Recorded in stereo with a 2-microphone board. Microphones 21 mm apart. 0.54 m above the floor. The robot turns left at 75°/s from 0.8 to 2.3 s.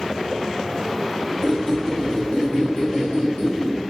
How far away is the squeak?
About 1.5 m.